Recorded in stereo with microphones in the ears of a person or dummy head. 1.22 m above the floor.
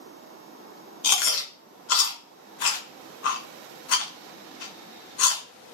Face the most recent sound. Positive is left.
turn(degrees=75)  # may be behind; listen again after turning